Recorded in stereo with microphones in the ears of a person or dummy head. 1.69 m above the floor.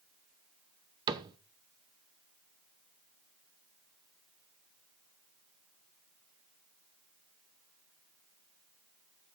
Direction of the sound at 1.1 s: 20° right (ahead or behind).